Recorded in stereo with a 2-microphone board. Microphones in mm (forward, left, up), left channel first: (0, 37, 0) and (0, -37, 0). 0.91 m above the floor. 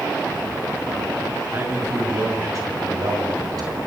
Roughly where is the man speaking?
Right.